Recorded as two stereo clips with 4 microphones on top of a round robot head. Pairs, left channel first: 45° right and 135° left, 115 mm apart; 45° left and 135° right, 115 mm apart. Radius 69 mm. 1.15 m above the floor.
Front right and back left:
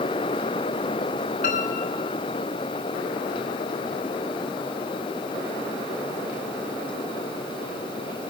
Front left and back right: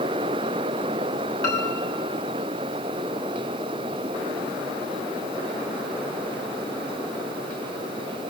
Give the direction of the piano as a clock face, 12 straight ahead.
1 o'clock.